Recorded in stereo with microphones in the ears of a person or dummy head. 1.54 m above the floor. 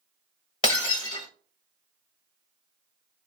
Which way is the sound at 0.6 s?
30° left (ahead or behind).